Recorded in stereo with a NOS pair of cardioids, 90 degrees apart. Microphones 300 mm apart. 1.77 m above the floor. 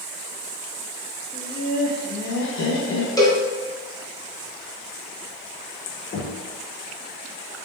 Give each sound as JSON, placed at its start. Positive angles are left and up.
{"t": 1.3, "sound": "laughter", "azimuth_deg": 15, "distance_m": 0.9}
{"t": 3.2, "sound": "a cowbell", "azimuth_deg": 15, "distance_m": 1.0}
{"t": 6.1, "sound": "knocking", "azimuth_deg": 35, "distance_m": 1.1}